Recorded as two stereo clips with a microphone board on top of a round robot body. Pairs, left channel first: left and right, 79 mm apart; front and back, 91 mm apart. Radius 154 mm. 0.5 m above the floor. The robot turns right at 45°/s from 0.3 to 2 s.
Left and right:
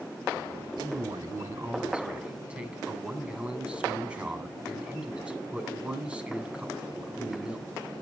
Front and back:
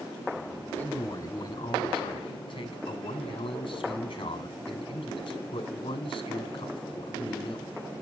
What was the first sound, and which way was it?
A man speaking, 75° right.